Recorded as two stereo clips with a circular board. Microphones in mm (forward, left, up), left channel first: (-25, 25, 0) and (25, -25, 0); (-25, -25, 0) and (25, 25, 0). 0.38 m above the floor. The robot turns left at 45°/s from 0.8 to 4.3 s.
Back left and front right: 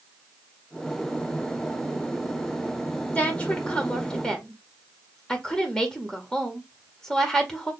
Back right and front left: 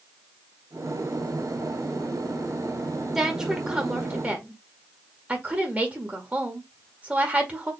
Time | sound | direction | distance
3.1 | a woman speaking | 120° left | 1.5 m